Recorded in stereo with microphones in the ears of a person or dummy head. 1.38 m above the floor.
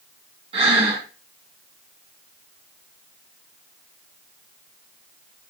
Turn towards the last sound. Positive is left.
turn(degrees=-35)  # may be behind; listen again after turning